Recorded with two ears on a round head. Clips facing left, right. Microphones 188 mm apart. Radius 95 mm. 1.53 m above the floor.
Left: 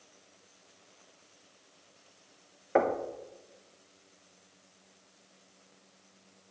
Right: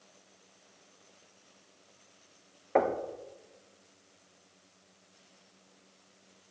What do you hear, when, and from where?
2.8 s knocking: 5° left (ahead or behind), 1.0 m